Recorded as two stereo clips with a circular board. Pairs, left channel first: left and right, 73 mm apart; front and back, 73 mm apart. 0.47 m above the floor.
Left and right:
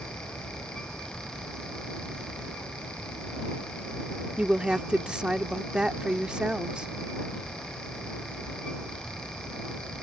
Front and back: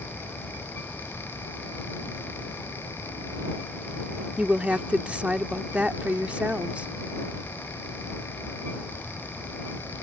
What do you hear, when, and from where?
4.4 s a woman speaking: 140° right